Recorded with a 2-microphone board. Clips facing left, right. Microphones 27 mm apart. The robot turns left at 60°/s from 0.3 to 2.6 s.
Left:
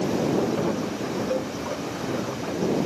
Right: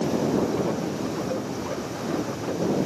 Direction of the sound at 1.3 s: 25° left (ahead or behind).